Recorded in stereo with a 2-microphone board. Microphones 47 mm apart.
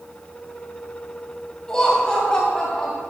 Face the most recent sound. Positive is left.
turn(degrees=15)  # may be behind; listen again after turning